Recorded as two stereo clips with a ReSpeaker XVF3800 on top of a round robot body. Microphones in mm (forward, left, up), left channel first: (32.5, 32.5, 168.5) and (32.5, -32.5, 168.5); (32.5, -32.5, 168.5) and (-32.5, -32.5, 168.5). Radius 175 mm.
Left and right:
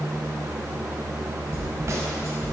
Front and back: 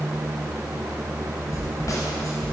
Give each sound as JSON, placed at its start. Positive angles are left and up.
{"t": 1.5, "sound": "a snare drum", "azimuth_deg": -40, "distance_m": 0.7}